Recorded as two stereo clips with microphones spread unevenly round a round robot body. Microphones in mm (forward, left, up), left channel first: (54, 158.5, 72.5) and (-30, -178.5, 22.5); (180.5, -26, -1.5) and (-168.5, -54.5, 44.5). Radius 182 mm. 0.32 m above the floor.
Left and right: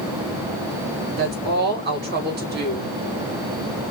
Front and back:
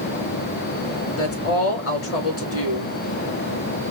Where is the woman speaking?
45° right, 3.5 m.